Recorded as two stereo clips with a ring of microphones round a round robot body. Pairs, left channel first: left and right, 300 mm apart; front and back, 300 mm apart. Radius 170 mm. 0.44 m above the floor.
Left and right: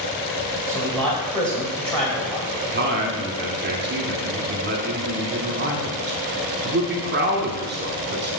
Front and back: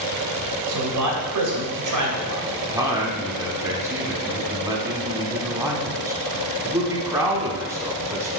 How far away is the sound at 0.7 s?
About 2.5 m.